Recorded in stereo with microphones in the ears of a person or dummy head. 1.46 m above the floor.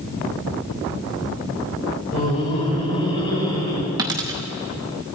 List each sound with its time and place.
2.1 s laughter: 40° left (ahead or behind), 5 m; by 3.9 s 25° left (ahead or behind), 7 m
4.0 s a dropped coin: 15° right (ahead or behind), 0.8 m